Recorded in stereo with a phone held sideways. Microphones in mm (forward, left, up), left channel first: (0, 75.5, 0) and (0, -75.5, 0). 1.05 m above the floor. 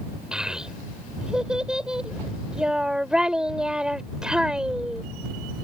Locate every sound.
0.3 s a child speaking: 5° right (ahead or behind)